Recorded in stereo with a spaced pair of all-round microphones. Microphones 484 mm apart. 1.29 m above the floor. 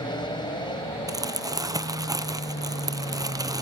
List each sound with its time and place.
0.0 s an aircraft: 10° left (ahead or behind)
1.1 s crumpling: 10° right (ahead or behind)